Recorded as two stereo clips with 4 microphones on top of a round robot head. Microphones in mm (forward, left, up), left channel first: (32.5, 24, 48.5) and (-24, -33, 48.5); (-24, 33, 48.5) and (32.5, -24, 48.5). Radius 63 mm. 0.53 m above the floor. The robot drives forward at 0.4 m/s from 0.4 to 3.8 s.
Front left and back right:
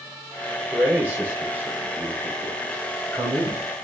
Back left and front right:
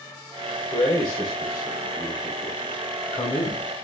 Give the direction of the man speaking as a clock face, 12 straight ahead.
7 o'clock.